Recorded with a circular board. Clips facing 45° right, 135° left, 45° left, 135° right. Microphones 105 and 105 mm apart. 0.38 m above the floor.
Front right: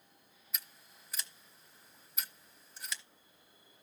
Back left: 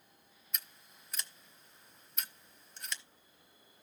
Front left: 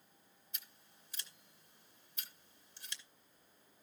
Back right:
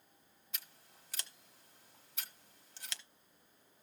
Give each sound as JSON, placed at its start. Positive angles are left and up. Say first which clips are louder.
{"t": 0.5, "sound": "scissors", "louder": "back left 1 dB, back right 5 dB", "azimuth_deg": -135, "distance_m": 1.0}